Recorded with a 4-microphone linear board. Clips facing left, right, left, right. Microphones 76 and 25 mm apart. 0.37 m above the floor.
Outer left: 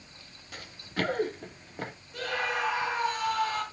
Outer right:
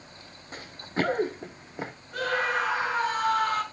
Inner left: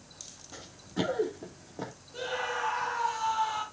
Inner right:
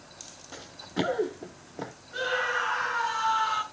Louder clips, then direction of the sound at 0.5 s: Outer right 4 dB, inner right 3 dB; 30° right (ahead or behind).